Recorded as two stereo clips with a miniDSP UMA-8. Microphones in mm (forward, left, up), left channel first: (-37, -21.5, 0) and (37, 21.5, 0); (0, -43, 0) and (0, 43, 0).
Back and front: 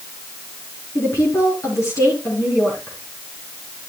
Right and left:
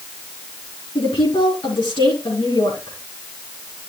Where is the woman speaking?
100° right, 4 m.